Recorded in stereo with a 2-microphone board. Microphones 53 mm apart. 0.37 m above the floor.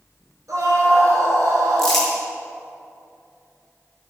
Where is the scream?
80° right, 5.5 m.